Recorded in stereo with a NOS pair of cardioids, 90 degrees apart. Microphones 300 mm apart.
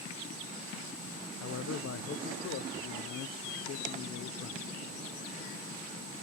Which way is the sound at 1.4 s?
55° left.